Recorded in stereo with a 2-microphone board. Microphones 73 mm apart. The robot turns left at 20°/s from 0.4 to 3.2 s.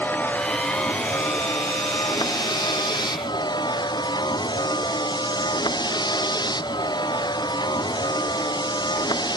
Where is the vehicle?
155° left; by 9.4 s 100° left.